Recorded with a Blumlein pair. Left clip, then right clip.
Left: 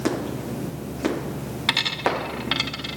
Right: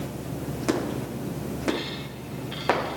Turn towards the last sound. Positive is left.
turn(degrees=50)